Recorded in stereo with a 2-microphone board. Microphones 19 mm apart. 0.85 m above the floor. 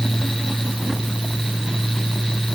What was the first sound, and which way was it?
Only background noise.